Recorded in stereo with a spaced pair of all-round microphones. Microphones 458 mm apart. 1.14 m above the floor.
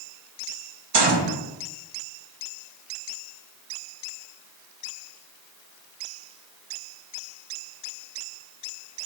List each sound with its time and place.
0.9 s a gunshot: 60° right (ahead or behind), 0.6 m